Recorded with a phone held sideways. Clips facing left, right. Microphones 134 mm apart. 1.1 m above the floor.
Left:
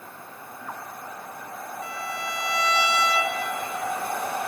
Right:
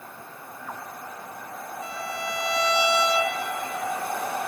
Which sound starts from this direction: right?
A violin, at 1.8 s.